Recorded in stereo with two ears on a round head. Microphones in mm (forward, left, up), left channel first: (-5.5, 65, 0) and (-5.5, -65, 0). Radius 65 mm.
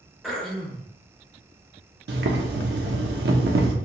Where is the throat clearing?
Centre (ahead or behind), 0.8 m.